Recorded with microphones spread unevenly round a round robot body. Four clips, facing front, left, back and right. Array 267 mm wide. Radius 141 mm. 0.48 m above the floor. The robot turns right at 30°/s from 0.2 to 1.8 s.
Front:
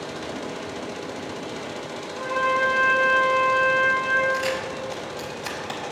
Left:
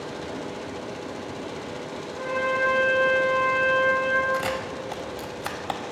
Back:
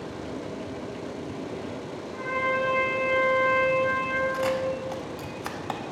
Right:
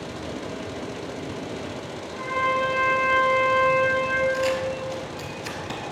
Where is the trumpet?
130° right, 1.8 m.